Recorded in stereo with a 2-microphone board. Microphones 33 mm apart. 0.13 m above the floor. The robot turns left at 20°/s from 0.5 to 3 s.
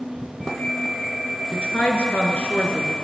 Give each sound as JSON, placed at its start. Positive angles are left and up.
{"t": 1.5, "sound": "a woman speaking", "side_deg": 45, "distance_m": 1.8}